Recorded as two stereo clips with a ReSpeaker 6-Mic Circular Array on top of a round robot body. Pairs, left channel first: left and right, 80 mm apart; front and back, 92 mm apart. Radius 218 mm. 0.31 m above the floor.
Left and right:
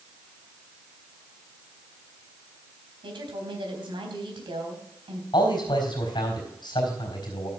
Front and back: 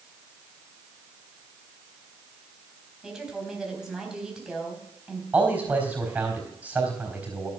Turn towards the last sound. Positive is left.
turn(degrees=105)